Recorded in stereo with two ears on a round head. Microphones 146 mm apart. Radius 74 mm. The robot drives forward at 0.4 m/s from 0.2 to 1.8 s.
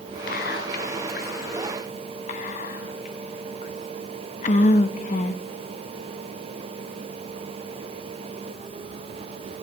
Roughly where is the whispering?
Left.